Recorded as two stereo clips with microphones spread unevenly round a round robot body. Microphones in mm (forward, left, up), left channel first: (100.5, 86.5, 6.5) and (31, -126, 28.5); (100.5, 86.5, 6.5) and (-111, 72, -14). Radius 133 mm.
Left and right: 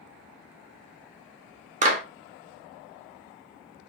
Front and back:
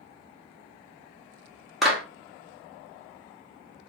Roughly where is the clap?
Right.